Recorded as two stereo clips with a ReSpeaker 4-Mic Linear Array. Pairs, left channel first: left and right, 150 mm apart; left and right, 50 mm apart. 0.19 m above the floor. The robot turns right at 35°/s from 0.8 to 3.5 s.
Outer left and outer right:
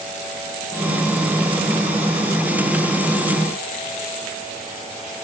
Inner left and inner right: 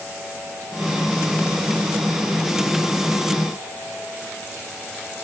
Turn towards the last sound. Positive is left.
No sound to turn to.